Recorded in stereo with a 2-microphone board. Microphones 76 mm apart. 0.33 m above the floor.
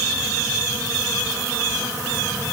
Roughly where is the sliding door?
I don't hear a sliding door.